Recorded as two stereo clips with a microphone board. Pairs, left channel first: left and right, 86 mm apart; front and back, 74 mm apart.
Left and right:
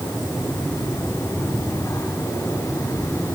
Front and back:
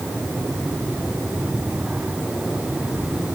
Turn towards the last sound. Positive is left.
No sound to turn to.